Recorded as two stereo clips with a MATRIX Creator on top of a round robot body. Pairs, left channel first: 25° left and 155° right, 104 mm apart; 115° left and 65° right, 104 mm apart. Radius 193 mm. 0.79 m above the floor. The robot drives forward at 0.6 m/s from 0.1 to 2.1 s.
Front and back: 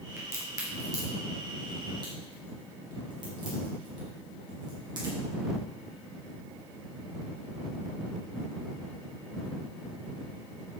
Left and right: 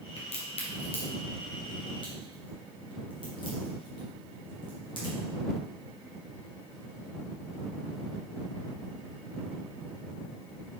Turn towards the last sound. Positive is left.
turn(degrees=155)